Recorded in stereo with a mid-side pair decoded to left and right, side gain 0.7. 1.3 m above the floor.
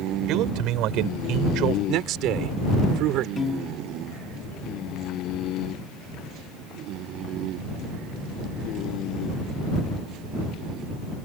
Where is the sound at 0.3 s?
60° right.